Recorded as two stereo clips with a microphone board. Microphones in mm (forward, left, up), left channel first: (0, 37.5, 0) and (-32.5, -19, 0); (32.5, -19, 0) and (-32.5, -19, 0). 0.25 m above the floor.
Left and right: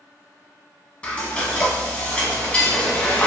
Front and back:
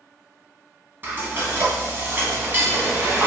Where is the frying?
130° left, 0.7 m.